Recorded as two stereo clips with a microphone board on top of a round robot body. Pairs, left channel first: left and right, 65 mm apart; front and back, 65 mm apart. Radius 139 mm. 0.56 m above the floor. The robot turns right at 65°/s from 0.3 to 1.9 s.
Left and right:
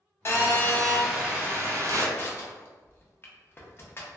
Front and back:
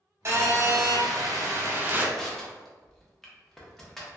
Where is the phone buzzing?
140° left, 0.7 m; by 2.0 s 120° right, 0.7 m.